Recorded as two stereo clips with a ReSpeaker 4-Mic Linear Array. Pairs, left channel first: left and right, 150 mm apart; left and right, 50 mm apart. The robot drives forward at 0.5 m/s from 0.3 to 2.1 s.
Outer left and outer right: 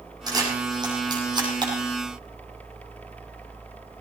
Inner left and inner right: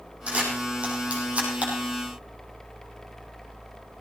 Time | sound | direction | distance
0.3 | a camera shutter | 25° right (ahead or behind) | 5.5 m